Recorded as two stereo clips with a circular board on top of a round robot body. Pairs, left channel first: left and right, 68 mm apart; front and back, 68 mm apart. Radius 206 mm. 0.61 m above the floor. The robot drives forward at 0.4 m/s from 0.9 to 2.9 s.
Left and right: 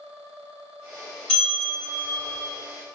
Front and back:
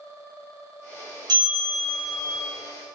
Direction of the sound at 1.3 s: 170° left.